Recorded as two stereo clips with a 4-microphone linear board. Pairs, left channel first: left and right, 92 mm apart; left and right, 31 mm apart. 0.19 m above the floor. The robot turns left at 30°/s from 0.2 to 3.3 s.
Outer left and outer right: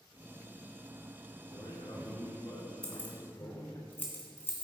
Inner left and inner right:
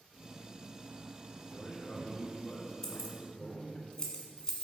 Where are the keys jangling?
15° left (ahead or behind), 1.5 m; by 4.6 s 25° left (ahead or behind), 1.5 m.